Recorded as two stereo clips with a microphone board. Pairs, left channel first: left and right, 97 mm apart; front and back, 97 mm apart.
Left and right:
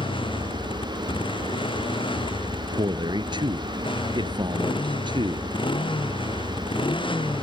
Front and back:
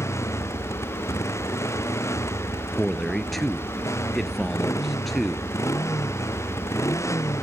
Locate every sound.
0.0 s a motorcycle: 60° left
2.7 s a man speaking: 90° right